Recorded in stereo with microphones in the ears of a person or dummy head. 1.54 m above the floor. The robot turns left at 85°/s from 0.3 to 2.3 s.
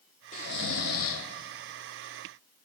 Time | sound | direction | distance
0.3 | snoring | 140° left | 0.9 m